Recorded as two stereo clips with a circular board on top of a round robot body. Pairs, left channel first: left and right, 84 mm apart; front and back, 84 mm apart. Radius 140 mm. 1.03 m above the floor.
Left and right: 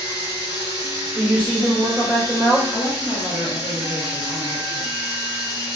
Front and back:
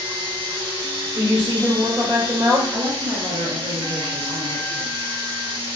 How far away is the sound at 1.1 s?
About 1.2 m.